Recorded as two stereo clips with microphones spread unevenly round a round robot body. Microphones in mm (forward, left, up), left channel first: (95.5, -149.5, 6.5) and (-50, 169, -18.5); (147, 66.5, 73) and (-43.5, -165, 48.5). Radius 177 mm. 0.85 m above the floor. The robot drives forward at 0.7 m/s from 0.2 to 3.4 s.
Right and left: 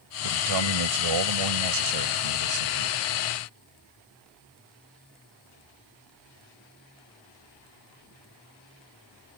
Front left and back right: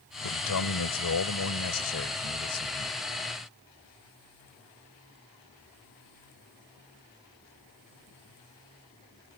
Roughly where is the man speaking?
Left.